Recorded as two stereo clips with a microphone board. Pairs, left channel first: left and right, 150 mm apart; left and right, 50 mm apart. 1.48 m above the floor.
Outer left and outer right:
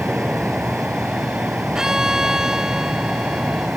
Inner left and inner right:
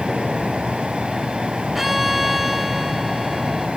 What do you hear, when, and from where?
0.0 s an insect: 5° right (ahead or behind)
1.8 s a violin: 5° right (ahead or behind)